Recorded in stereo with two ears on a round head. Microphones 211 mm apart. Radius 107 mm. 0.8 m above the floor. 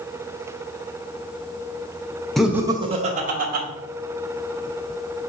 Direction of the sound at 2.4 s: Centre (ahead or behind).